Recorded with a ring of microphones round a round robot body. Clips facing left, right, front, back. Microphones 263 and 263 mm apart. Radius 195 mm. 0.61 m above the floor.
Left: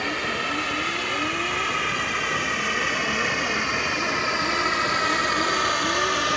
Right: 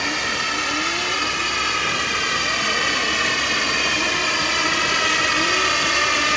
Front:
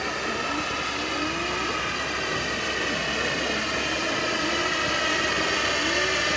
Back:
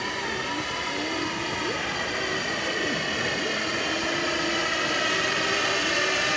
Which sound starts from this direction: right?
A drone, at 0.0 s.